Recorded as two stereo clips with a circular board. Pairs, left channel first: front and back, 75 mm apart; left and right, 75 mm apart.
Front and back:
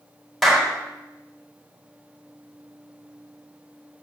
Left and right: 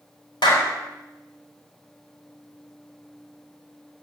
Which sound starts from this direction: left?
A clap, at 0.4 s.